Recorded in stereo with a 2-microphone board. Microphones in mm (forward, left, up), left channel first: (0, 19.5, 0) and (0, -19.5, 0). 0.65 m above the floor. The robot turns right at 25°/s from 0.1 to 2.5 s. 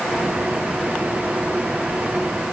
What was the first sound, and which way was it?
Only background noise.